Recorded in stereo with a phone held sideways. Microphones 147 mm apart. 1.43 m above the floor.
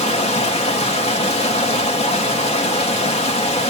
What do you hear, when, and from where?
0.0 s running water: 45° left (ahead or behind), 1.9 m